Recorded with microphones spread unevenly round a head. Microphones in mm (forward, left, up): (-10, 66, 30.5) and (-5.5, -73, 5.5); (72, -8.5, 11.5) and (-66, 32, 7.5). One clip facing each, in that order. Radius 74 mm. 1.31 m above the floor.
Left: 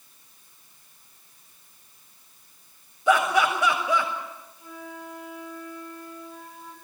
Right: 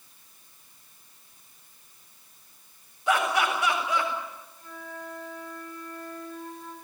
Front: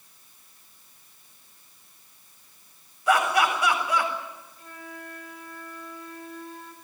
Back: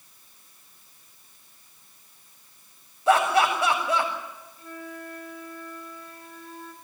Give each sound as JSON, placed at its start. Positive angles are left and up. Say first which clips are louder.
{"t": 3.1, "sound": "laughter", "louder": "left 4 dB, back 2 dB", "azimuth_deg": 100, "distance_m": 7.5}
{"t": 4.6, "sound": "a flute", "louder": "left 1 dB, back 5 dB", "azimuth_deg": 175, "distance_m": 5.0}